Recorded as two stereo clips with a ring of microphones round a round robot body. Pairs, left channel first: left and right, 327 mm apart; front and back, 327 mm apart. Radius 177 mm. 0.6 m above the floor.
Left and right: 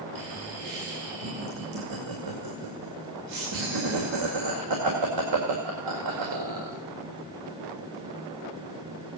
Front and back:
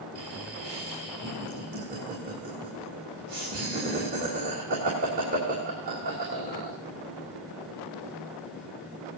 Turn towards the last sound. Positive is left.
turn(degrees=-115)